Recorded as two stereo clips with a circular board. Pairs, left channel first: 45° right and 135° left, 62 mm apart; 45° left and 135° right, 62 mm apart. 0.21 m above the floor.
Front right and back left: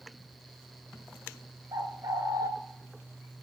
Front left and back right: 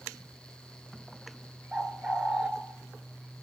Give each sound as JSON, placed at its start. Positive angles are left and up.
{"t": 1.7, "sound": "a bird", "azimuth_deg": 150, "distance_m": 0.6}